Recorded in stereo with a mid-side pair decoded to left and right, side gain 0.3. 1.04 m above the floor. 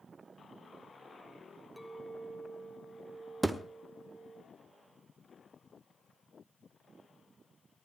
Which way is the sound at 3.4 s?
20° right.